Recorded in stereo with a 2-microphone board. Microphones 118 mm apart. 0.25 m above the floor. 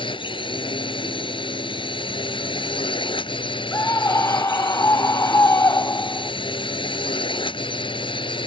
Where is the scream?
25° left (ahead or behind).